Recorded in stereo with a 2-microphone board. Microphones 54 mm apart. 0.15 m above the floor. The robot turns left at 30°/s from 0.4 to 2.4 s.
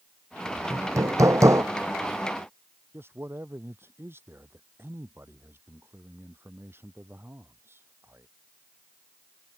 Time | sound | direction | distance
0.7 | hammering | 80° right | ?
2.9 | a man speaking | 45° right (ahead or behind) | ?